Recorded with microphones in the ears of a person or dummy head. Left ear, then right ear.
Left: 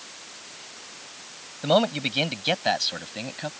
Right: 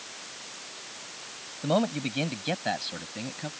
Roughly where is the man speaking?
Left.